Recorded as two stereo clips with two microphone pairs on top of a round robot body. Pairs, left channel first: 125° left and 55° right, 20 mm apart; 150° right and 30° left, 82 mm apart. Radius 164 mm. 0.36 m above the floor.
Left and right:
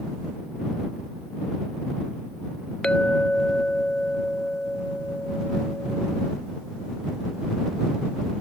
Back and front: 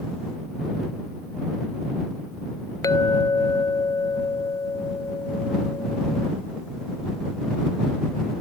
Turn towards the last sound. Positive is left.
turn(degrees=165)